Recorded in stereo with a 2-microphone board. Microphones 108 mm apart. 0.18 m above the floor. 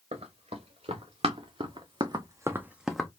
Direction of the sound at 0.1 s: 80° right.